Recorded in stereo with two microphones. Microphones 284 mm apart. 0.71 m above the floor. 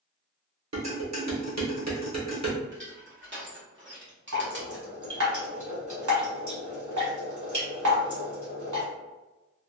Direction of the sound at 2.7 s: 40° right (ahead or behind).